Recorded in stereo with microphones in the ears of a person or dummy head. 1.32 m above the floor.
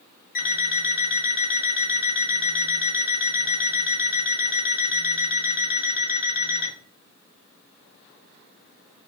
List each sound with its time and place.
0.3 s an alarm clock: 40° left (ahead or behind), 0.9 m